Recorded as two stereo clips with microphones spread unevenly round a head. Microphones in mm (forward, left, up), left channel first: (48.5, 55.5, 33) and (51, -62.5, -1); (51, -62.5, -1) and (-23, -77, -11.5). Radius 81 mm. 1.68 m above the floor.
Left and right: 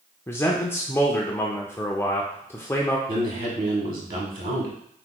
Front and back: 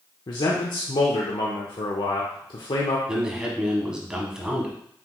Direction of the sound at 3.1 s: 90° right.